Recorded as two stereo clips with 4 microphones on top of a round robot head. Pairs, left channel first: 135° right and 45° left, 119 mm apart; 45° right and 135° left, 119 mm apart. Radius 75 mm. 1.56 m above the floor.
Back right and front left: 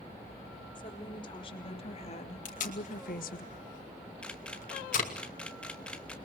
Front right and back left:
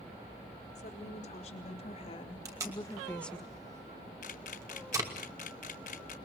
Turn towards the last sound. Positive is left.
turn(degrees=-55)